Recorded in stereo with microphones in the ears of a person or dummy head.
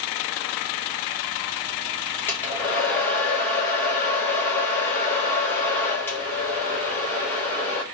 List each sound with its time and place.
2.3 s a hair dryer: 10° left (ahead or behind), 1.0 m